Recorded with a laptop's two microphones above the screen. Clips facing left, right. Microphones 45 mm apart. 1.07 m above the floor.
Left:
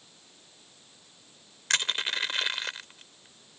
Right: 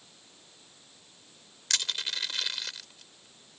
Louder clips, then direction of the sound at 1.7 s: Left 5 dB; 30° left (ahead or behind).